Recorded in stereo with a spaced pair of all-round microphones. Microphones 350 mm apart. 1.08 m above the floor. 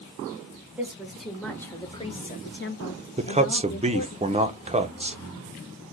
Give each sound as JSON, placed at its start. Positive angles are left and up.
{"t": 0.8, "sound": "a woman speaking", "side_deg": -5, "distance_m": 1.4}
{"t": 3.2, "sound": "a man speaking", "side_deg": -20, "distance_m": 0.5}